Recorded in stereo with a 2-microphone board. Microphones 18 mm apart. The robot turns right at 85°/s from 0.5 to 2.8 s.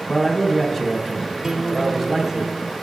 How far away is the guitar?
About 1.0 m.